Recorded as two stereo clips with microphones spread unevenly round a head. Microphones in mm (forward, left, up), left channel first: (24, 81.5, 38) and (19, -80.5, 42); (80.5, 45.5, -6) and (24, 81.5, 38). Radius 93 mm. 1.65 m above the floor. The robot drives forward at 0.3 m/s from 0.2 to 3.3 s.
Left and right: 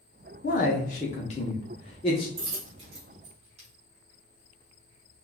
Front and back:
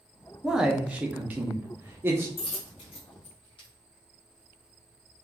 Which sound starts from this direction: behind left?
A man speaking, at 0.4 s.